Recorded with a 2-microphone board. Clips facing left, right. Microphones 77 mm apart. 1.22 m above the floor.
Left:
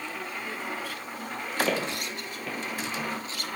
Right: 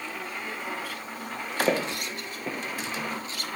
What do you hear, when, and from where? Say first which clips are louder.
1.7 s footsteps: right 3 dB; 30° right (ahead or behind), 1.6 m